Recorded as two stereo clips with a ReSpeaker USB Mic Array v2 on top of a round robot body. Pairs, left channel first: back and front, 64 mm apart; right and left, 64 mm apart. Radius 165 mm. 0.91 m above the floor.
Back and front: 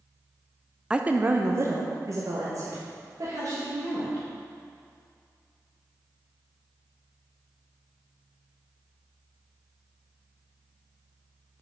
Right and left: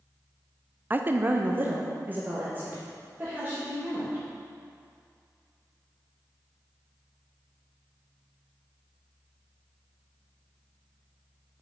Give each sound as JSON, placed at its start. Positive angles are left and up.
{"t": 0.9, "sound": "a woman speaking", "azimuth_deg": 65, "distance_m": 0.5}